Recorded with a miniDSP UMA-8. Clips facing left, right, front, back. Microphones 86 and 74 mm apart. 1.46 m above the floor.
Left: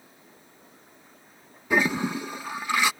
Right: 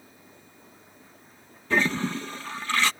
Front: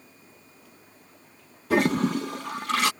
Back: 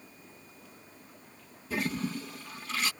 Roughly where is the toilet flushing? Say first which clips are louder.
Left 1 dB, front 11 dB; ahead.